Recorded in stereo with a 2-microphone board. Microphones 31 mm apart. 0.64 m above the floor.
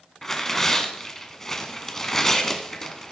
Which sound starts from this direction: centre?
Tearing paper, at 0.2 s.